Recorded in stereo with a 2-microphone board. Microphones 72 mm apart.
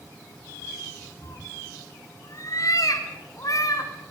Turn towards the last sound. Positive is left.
turn(degrees=55)  # may be behind; listen again after turning